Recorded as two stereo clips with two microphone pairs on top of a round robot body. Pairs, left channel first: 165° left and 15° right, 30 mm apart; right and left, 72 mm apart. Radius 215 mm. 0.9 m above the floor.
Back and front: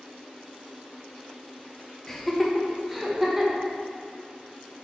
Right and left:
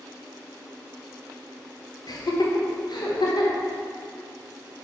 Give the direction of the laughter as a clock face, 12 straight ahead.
4 o'clock.